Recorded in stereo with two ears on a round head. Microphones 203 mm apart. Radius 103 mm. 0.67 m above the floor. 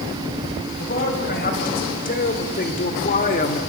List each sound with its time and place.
0.8 s a man speaking: 45° left (ahead or behind), 4 m; by 3.6 s 35° left (ahead or behind), 1.2 m